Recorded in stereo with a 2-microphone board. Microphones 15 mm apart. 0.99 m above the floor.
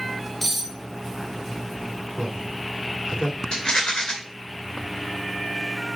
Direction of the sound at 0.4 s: 15° left (ahead or behind).